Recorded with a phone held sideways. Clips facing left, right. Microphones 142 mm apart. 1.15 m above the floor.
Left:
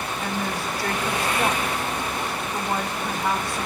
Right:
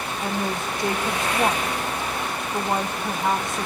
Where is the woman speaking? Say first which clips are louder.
Right 2 dB; 20° right (ahead or behind), 0.6 m.